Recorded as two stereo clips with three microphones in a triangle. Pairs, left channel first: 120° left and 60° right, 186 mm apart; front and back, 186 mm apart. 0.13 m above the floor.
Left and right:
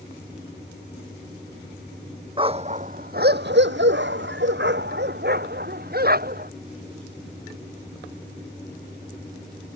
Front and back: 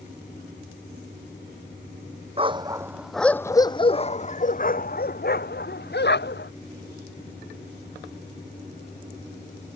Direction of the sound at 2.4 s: 120° right.